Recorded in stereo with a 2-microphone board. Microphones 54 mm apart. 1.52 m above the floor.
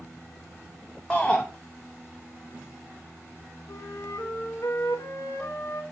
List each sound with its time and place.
1.1 s a shout: 20° left (ahead or behind), 1.0 m
3.7 s a flute: 75° left (ahead or behind), 1.9 m